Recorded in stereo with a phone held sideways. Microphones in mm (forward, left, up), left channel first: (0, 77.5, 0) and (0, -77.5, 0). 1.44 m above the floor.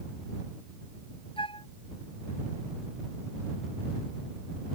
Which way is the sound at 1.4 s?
35° left (ahead or behind).